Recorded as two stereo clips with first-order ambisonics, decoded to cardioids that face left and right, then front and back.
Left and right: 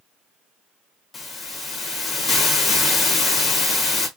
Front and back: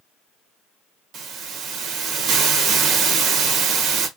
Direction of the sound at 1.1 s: 150° left.